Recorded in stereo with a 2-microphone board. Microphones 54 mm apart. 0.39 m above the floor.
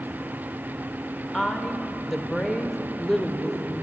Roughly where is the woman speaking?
Centre.